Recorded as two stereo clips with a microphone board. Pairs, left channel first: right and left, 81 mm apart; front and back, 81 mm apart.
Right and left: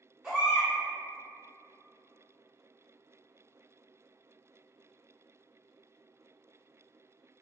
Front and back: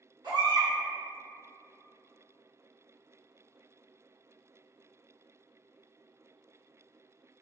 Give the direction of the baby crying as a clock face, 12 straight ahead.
6 o'clock.